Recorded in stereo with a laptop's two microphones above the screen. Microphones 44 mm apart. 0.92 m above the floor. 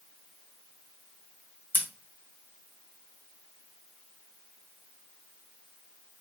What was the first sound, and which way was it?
Scissors, 50° left (ahead or behind).